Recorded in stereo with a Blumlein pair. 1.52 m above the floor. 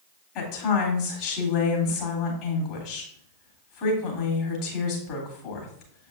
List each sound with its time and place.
0.3 s a woman speaking: 45° left, 3 m